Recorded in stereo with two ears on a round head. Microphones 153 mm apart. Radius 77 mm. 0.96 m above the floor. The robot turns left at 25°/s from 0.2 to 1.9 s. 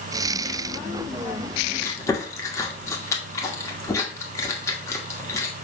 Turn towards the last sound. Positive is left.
turn(degrees=20)  # may be behind; listen again after turning